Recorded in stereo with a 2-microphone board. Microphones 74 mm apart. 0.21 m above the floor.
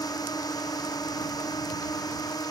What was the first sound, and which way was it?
A drone, 60° left (ahead or behind).